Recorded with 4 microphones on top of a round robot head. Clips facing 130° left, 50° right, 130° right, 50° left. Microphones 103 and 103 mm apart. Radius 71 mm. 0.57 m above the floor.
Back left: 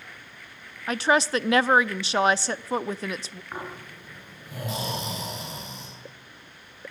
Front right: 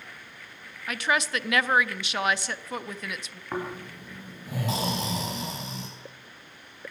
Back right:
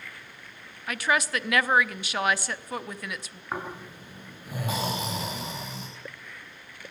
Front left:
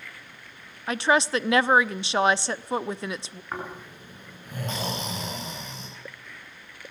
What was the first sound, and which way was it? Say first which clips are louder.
A woman speaking: back left 5 dB, front left 4 dB; 95° left.